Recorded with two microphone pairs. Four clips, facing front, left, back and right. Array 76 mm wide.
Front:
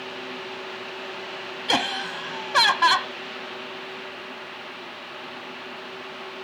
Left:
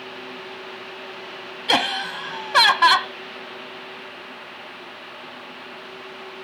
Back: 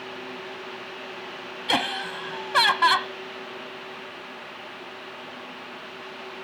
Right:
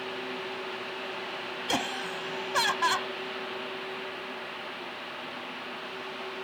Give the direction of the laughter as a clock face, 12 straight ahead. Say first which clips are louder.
Left 10 dB, front 1 dB; 9 o'clock.